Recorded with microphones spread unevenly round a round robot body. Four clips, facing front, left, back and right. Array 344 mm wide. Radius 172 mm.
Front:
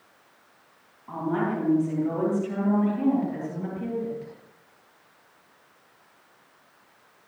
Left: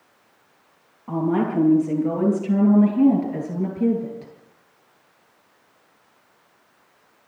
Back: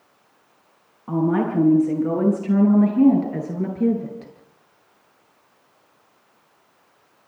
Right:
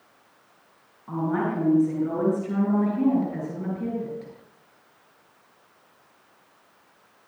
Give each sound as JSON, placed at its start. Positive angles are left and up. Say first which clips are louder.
{"t": 1.1, "sound": "a woman speaking", "louder": "left 4 dB, back 6 dB", "azimuth_deg": 160, "distance_m": 10.0}